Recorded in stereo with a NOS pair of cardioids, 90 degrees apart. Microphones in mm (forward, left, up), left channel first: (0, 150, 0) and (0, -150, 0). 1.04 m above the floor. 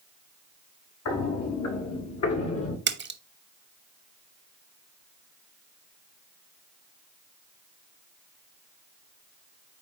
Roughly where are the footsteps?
Ahead left.